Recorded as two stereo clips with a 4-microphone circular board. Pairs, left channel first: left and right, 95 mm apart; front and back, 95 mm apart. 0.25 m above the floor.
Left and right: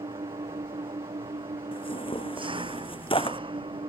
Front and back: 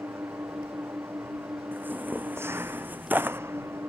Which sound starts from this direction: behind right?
An engine running, at 0.0 s.